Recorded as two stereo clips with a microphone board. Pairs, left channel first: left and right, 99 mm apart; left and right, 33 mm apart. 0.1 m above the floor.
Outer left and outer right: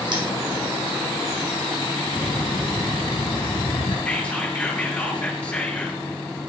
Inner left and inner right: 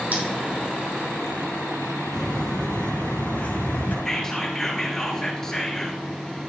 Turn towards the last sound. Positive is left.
turn(degrees=15)  # may be behind; listen again after turning